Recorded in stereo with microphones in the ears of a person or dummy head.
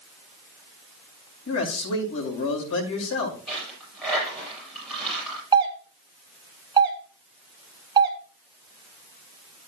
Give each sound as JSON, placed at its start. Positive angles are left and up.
{"t": 1.5, "sound": "a man speaking", "side_deg": 75, "distance_m": 6.0}
{"t": 3.5, "sound": "a dropped coin", "side_deg": 5, "distance_m": 8.5}
{"t": 5.5, "sound": "a doorbell", "side_deg": -20, "distance_m": 1.6}